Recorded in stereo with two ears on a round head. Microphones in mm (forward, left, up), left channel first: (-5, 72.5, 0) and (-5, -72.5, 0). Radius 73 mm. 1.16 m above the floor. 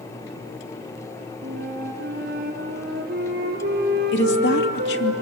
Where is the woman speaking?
80° left, 2.5 m.